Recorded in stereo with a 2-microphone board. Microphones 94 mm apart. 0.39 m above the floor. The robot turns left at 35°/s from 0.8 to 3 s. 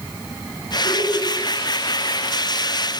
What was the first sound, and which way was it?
Laughter, 35° left (ahead or behind).